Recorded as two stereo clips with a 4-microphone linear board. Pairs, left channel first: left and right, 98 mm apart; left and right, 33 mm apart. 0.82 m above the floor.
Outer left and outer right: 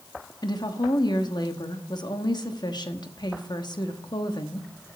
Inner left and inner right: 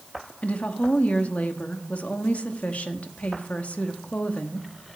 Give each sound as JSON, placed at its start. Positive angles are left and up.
{"t": 0.4, "sound": "a woman speaking", "side_deg": 45, "distance_m": 1.1}